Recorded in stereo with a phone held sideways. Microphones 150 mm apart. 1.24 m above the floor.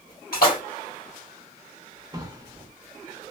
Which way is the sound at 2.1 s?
25° right (ahead or behind).